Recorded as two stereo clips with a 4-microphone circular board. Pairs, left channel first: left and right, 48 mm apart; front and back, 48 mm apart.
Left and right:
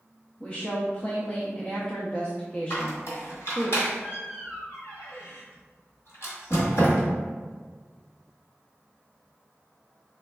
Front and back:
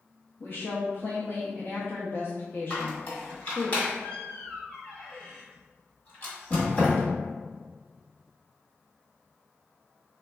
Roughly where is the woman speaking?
Ahead left.